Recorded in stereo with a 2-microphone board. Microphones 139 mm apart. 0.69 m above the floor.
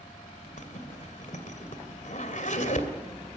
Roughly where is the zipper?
Left.